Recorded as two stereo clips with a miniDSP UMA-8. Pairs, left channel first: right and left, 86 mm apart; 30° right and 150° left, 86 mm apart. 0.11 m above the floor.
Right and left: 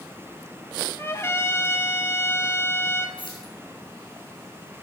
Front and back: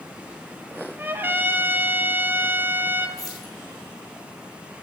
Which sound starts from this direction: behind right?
A trumpet, at 1.0 s.